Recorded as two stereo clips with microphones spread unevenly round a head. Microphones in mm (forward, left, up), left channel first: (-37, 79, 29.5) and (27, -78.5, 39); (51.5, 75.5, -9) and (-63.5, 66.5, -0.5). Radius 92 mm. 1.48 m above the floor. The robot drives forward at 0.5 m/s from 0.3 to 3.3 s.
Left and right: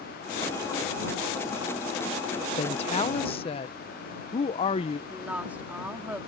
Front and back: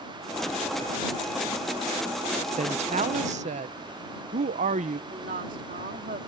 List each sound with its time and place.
2.6 s a woman speaking: 165° left; by 5.0 s 175° left
5.1 s a woman speaking: 150° right